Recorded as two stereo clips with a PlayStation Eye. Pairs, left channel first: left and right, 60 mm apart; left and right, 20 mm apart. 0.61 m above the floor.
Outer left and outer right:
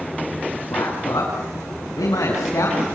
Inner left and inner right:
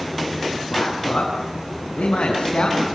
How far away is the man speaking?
About 8.5 m.